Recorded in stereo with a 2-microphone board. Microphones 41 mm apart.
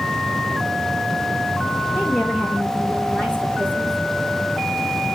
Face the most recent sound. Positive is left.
turn(degrees=45)  # may be behind; listen again after turning